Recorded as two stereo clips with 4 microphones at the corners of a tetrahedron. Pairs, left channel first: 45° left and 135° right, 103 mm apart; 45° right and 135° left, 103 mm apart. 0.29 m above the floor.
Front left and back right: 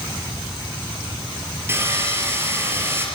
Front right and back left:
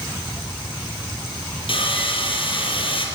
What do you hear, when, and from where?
1.7 s sawing: 70° right, 4 m